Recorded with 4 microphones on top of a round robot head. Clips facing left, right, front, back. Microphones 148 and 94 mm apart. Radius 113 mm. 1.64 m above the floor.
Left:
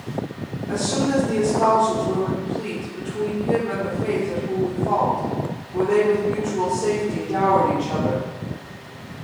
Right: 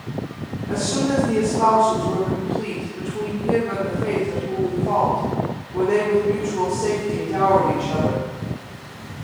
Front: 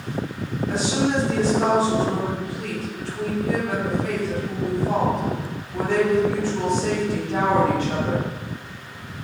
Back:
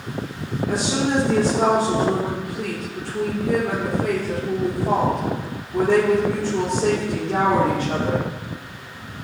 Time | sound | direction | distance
0.7 | a woman speaking | 175° right | 1.9 m